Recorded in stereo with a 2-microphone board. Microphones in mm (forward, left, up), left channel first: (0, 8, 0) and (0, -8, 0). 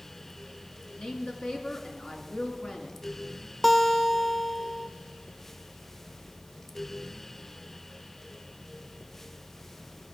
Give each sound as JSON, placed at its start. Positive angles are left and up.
{"t": 1.0, "sound": "a woman speaking", "side_deg": 70, "distance_m": 2.5}
{"t": 3.6, "sound": "a guitar", "side_deg": 15, "distance_m": 0.8}